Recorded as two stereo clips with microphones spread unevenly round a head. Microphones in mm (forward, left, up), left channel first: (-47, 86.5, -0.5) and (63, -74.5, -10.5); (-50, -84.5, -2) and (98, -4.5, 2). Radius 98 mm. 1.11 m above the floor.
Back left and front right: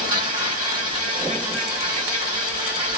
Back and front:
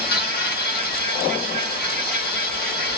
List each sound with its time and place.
0.0 s an insect: 120° right, 1.3 m